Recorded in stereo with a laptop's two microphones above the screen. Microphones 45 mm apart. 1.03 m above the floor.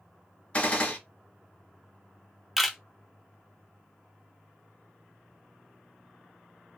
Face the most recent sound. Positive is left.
turn(degrees=-5)  # may be behind; listen again after turning